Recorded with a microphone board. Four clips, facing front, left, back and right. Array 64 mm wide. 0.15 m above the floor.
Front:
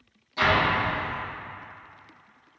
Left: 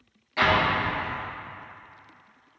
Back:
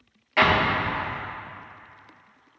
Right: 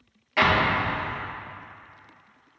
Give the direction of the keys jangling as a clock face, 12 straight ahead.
No keys jangling in this recording.